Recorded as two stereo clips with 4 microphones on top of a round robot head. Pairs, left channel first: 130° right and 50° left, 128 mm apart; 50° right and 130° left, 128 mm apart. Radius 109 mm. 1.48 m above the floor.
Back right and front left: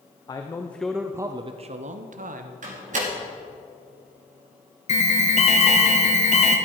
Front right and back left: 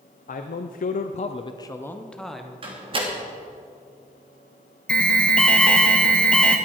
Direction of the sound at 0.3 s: 70° right.